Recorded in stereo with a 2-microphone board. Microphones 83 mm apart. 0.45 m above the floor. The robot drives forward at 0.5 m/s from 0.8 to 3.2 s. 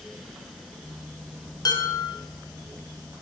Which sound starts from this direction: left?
Dishes clattering, at 1.6 s.